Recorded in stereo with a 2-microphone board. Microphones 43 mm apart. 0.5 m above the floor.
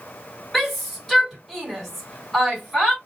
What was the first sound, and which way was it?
A shout, 5° left (ahead or behind).